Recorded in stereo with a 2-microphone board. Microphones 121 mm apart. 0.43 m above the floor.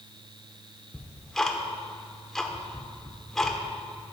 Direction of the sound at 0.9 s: 5° left (ahead or behind).